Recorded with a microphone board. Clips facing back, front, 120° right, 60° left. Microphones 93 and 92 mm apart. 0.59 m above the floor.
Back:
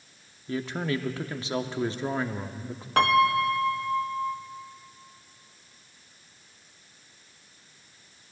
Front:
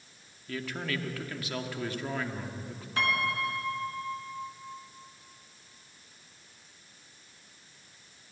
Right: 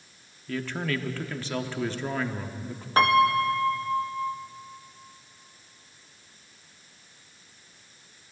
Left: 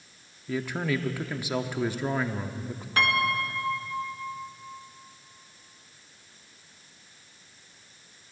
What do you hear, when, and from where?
0.5 s a man speaking: 130° left, 0.8 m
3.0 s a piano: 170° right, 0.8 m